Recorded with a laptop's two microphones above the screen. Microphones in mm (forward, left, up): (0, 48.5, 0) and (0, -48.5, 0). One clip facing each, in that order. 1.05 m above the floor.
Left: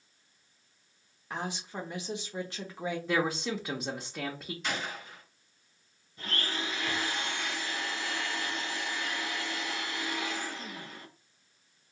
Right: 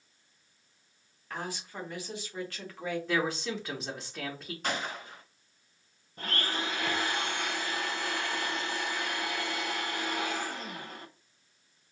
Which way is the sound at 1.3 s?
20° left (ahead or behind).